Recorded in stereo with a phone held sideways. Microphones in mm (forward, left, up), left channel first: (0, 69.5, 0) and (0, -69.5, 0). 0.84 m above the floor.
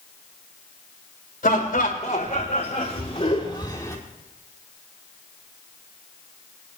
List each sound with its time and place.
1.4 s laughter: 75° left (ahead or behind), 3.5 m; by 4.0 s 20° left (ahead or behind), 2.5 m